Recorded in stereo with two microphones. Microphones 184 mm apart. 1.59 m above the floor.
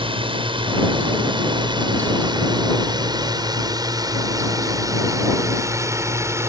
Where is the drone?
30° right (ahead or behind); by 6.5 s 15° right (ahead or behind).